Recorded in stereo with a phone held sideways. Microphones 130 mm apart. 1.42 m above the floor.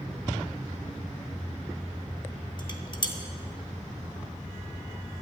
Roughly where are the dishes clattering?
Left.